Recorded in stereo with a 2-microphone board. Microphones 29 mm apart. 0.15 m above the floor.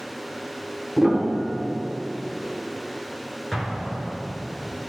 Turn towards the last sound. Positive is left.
turn(degrees=10)  # may be behind; listen again after turning